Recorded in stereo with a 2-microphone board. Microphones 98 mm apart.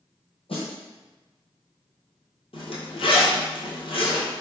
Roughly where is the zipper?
Left.